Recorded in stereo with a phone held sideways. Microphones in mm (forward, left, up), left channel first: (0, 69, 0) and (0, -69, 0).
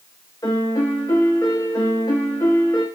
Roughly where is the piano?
Left.